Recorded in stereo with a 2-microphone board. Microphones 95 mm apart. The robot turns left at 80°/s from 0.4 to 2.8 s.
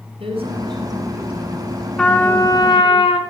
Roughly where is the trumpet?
Behind.